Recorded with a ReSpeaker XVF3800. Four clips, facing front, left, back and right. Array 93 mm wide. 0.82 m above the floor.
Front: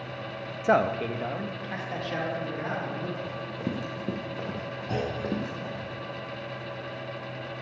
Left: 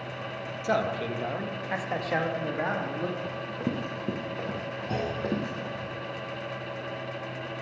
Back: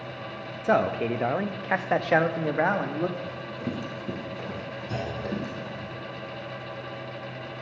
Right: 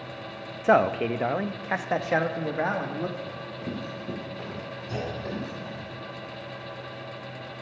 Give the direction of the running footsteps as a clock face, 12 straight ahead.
10 o'clock.